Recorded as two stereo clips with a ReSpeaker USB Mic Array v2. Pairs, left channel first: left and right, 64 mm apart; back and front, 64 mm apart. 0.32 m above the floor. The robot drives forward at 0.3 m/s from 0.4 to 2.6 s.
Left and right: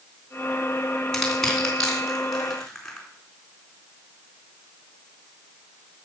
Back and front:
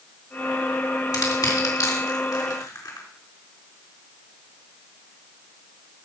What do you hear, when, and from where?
1.1 s crushing: 170° left, 3.5 m; by 3.1 s 175° left, 4 m